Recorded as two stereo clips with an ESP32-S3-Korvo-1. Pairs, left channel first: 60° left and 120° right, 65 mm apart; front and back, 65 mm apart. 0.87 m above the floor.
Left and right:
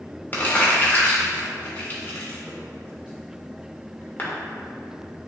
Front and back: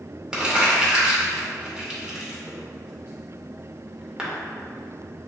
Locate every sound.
0.3 s crumpling: 105° left, 0.6 m